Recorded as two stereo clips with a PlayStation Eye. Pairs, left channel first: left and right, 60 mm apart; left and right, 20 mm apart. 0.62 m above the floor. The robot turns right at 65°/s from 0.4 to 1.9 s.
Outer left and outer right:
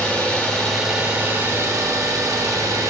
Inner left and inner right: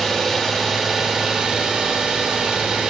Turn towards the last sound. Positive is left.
turn(degrees=-105)